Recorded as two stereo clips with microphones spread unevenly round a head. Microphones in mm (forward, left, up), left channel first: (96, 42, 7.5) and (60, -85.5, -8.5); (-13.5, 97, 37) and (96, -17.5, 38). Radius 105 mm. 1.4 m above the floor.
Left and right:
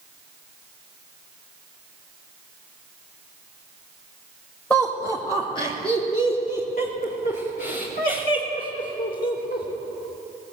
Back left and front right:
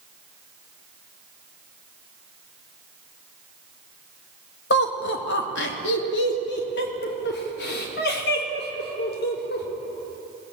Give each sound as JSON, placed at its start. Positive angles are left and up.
{"t": 4.7, "sound": "laughter", "azimuth_deg": 160, "distance_m": 1.9}